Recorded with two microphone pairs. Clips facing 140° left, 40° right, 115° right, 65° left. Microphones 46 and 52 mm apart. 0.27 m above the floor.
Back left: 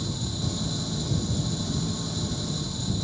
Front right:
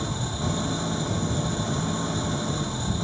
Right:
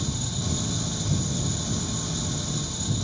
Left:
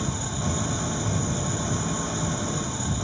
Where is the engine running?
5° left.